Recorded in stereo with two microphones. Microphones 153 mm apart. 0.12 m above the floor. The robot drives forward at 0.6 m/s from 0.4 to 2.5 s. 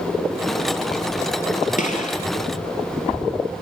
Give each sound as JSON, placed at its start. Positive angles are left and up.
{"t": 1.8, "sound": "a gunshot", "side_deg": 55, "distance_m": 2.5}